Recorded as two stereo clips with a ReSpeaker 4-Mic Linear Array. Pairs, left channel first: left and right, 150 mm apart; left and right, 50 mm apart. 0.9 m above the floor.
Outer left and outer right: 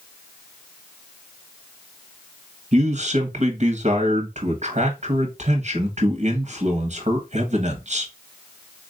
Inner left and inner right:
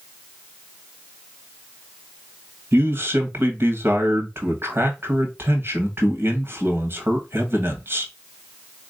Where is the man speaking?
50° right (ahead or behind), 1.1 m.